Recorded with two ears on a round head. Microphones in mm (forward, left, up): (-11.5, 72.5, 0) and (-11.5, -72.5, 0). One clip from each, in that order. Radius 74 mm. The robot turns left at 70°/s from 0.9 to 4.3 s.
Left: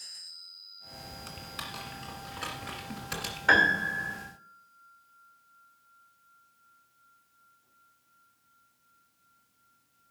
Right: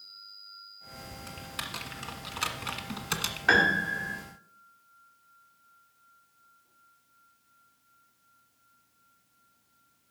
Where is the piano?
165° right, 2 m; by 4.2 s 145° left, 2 m.